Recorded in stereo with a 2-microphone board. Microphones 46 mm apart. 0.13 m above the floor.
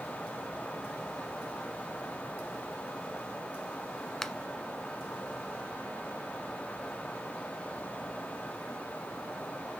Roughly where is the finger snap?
Centre.